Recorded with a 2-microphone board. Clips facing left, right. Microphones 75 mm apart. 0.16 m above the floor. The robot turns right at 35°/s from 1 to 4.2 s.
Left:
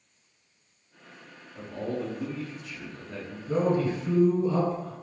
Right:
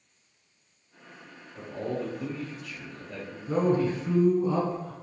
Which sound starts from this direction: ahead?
A man speaking, at 1.6 s.